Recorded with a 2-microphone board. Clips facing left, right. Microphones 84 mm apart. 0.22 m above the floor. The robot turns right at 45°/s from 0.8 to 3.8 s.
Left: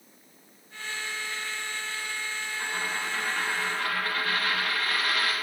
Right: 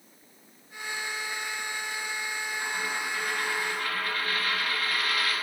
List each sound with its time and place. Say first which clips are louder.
2.6 s a dropped coin: left 1 dB; 45° left, 4.5 m; by 5.3 s 100° left, 4.5 m